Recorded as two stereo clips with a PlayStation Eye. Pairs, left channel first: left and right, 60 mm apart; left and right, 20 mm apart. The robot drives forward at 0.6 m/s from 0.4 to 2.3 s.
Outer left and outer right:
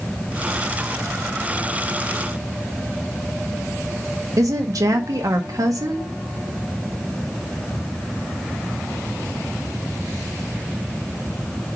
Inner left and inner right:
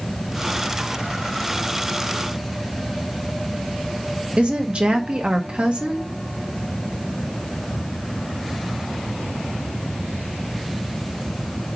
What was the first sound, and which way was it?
A woman speaking, 80° right.